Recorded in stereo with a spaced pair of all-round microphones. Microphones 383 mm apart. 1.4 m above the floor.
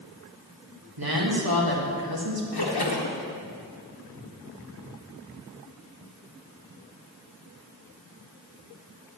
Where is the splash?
75° left (ahead or behind), 1.0 m.